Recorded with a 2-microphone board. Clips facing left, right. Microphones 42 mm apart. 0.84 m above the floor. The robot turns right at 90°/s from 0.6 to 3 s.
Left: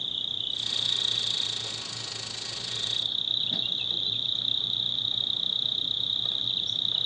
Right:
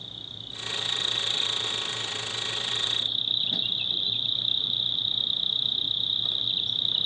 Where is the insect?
130° left; by 7.1 s 15° right.